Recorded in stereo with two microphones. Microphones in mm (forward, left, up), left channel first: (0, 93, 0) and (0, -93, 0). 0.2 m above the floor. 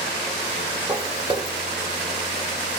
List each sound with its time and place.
0.9 s footsteps: 25° right (ahead or behind), 1.2 m